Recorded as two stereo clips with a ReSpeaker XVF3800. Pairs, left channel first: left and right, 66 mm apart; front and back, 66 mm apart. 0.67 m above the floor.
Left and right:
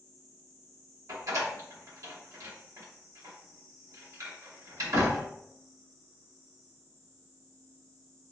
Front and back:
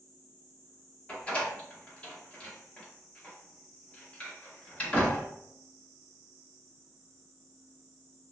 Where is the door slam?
70° right, 0.9 m.